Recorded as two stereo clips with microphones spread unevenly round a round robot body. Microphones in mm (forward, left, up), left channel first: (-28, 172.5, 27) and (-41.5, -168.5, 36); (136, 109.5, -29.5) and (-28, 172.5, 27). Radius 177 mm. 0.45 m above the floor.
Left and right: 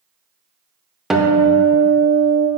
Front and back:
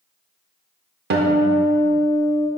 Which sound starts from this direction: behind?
A guitar, at 1.1 s.